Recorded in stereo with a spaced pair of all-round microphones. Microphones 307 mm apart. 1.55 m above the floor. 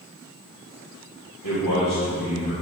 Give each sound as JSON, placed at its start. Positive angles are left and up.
{"t": 1.4, "sound": "a man speaking", "side_deg": 80, "distance_m": 3.0}